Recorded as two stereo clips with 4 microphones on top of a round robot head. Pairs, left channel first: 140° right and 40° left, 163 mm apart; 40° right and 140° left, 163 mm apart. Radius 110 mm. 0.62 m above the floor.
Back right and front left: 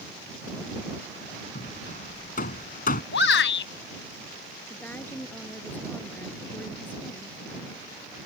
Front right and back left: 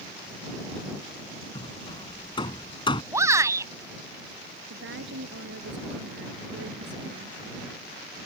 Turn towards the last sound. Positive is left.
turn(degrees=140)